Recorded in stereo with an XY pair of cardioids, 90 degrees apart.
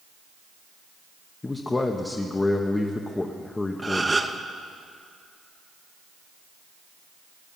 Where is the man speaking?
25° left, 1.1 m.